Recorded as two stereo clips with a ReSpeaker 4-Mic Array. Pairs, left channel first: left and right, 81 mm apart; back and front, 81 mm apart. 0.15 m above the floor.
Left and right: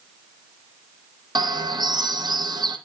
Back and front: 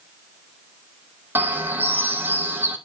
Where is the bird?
65° right, 1.4 m.